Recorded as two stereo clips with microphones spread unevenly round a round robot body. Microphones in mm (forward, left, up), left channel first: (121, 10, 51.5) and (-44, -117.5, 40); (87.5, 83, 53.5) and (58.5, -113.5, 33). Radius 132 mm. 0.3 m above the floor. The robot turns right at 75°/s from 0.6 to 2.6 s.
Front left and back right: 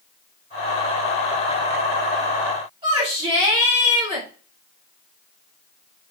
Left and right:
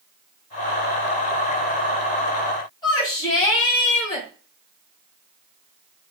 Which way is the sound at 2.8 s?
155° left.